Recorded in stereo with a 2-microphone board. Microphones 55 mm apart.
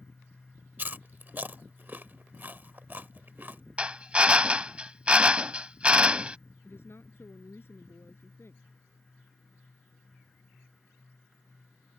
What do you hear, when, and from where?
0.8 s chewing: 35° right (ahead or behind)
3.8 s a drill: 20° right (ahead or behind)
6.6 s a woman speaking: 45° left (ahead or behind)